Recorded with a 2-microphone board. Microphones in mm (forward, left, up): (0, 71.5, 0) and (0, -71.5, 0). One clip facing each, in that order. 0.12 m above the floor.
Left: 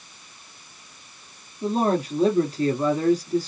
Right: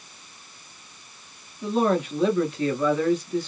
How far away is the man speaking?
About 1.3 m.